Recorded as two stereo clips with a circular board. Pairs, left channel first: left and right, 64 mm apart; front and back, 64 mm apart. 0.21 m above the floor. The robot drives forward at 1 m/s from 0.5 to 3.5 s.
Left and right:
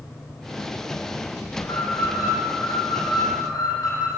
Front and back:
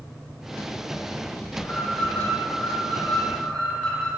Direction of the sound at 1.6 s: 65° left.